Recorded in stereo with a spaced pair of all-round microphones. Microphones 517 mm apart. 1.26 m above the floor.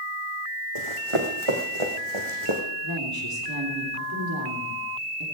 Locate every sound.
0.8 s running footsteps: 70° right (ahead or behind), 3.5 m; by 2.6 s 60° right (ahead or behind), 3 m
2.8 s a woman speaking: 45° right (ahead or behind), 3.5 m